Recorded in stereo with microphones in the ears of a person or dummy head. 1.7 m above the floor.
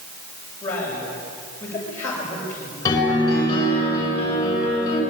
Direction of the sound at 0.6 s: 10° left (ahead or behind).